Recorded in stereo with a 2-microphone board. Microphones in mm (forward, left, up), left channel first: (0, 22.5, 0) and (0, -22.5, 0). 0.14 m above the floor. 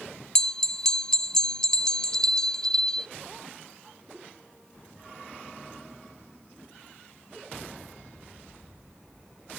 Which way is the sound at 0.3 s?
15° left (ahead or behind).